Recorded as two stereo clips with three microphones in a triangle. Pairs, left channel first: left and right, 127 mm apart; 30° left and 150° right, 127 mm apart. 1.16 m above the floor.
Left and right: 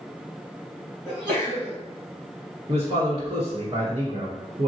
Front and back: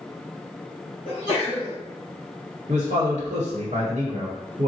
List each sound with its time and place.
1.1 s a sneeze: 10° right, 1.9 m
2.7 s a man speaking: 135° right, 1.1 m